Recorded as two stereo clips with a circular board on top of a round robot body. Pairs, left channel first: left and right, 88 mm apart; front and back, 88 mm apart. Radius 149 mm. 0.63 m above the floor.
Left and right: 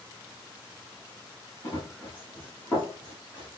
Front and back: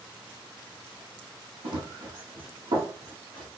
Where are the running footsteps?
155° left, 2 m; by 3.6 s 170° left, 3.5 m.